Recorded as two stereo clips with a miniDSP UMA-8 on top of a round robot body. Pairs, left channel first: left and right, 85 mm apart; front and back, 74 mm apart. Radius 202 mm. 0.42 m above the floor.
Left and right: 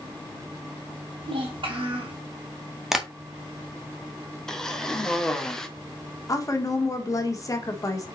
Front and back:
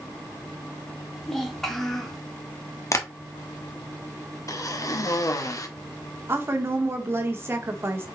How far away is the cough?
About 1.5 m.